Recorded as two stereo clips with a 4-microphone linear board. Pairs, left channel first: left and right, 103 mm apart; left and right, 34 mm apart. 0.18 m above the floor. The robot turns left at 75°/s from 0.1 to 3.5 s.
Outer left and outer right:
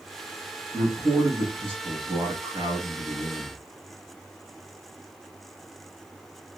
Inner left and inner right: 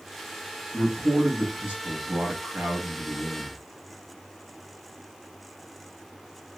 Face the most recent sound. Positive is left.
turn(degrees=160)